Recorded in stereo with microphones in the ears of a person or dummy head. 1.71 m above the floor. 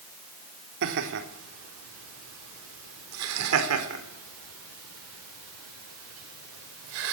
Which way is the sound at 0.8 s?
65° right (ahead or behind).